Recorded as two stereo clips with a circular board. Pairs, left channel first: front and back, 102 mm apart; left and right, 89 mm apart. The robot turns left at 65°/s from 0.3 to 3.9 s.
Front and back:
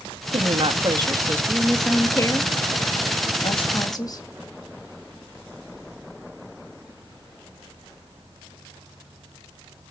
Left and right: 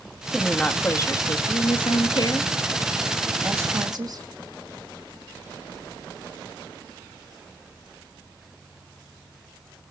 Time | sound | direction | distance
0.3 | a woman speaking | 175° right | 1.7 m